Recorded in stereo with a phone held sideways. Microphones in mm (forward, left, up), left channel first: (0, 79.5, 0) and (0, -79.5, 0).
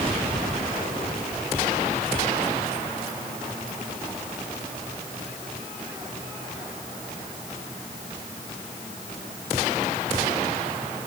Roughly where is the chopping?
No chopping in this recording.